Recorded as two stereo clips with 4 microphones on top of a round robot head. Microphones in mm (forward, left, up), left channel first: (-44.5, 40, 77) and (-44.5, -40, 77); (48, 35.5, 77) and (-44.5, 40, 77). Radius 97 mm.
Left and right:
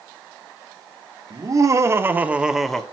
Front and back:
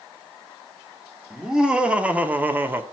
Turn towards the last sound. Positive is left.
turn(degrees=160)